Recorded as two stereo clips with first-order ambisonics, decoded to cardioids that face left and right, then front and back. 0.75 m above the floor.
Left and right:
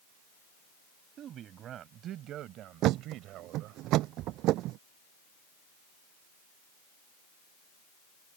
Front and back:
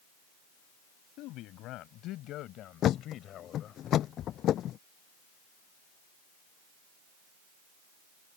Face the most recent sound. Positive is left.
turn(degrees=-50)